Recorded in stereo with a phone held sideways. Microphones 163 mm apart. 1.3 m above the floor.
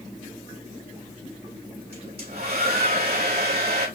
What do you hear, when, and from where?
1.9 s a hair dryer: 80° right, 3.5 m